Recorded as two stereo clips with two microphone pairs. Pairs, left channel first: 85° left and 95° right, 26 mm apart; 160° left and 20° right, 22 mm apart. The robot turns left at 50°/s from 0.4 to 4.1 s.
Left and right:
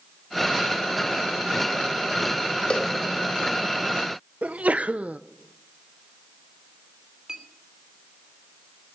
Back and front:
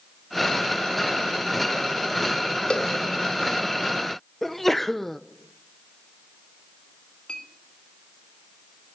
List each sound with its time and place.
2.7 s a cowbell: 135° left, 1.5 m; by 2.9 s 125° left, 1.5 m
4.4 s a sneeze: 120° right, 0.5 m
7.3 s a clink: 160° right, 3 m